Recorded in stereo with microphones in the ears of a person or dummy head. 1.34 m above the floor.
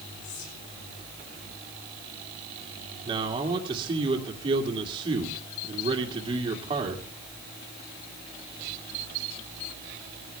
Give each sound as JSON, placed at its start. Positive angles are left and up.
{"t": 0.2, "sound": "whispering", "side_deg": 80, "distance_m": 8.5}
{"t": 3.0, "sound": "a man speaking", "side_deg": -30, "distance_m": 2.0}